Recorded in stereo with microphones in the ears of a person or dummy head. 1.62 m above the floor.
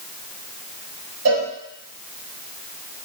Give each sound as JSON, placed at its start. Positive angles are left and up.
{"t": 1.2, "sound": "a cowbell", "side_deg": -80, "distance_m": 0.7}